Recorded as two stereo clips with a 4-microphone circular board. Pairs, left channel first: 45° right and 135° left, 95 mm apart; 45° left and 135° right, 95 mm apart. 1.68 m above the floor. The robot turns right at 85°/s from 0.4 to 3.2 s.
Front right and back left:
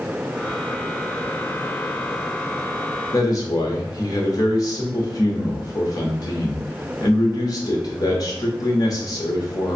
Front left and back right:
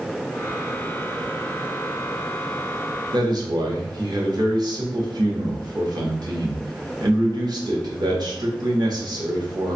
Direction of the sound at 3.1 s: 100° right.